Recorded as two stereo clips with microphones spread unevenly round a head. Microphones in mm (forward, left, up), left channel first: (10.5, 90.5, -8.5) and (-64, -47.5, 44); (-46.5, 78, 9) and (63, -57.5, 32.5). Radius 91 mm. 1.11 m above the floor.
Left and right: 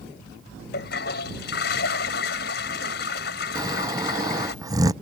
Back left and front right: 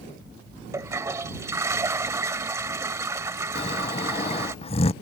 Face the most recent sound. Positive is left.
turn(degrees=165)